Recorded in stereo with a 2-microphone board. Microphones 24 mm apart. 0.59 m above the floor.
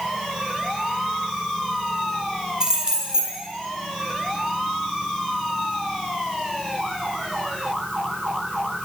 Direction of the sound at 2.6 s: 30° right (ahead or behind).